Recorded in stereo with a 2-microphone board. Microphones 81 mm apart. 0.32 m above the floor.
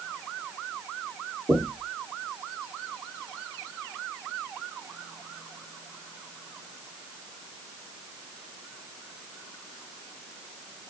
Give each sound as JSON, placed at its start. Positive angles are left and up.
{"t": 1.5, "sound": "knocking", "side_deg": -30, "distance_m": 3.0}